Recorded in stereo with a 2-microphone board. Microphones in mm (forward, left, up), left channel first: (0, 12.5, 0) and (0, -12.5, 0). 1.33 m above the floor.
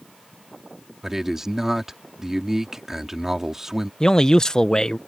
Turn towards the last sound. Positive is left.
turn(degrees=30)  # may be behind; listen again after turning